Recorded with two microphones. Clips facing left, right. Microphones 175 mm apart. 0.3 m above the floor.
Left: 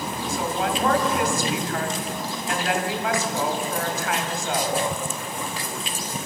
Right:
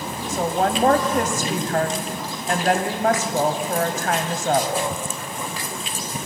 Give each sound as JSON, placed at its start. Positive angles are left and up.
{"t": 0.3, "sound": "a woman speaking", "side_deg": -50, "distance_m": 2.0}